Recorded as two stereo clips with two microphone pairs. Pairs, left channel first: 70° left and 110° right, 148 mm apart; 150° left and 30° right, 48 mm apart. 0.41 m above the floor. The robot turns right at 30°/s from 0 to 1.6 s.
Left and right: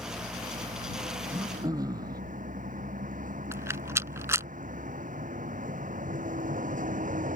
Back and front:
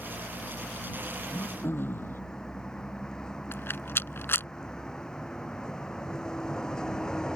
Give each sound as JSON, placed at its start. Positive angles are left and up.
{"t": 0.0, "sound": "a vehicle", "azimuth_deg": 175}
{"t": 1.3, "sound": "throat clearing", "azimuth_deg": 175}
{"t": 3.5, "sound": "a rattle", "azimuth_deg": 180}